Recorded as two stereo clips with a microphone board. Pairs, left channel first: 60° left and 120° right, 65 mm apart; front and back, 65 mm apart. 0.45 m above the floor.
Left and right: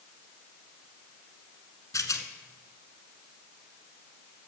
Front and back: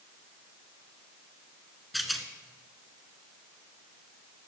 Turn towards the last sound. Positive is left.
turn(degrees=90)